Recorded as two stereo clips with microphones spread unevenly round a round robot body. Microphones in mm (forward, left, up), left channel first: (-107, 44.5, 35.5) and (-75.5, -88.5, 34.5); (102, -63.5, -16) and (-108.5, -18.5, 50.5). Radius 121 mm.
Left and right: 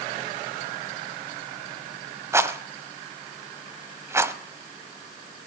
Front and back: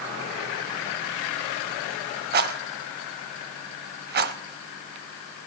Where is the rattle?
150° right, 0.9 m.